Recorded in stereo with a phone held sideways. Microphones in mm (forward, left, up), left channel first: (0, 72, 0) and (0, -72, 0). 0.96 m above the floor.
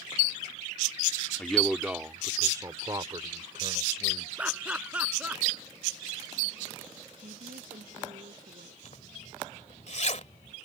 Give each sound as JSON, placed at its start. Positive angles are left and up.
{"t": 1.4, "sound": "a man speaking", "side_deg": 10}
{"t": 4.4, "sound": "laughter", "side_deg": -10}
{"t": 7.2, "sound": "a woman speaking", "side_deg": -80}
{"t": 8.8, "sound": "a zipper", "side_deg": 55}